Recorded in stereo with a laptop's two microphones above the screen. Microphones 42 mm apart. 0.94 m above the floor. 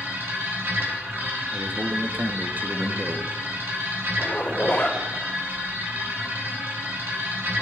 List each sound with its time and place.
0.0 s a machine running: 60° right (ahead or behind), 3 m
1.5 s a man speaking: 45° right (ahead or behind), 1.3 m
4.2 s a zipper: 30° left (ahead or behind), 2.5 m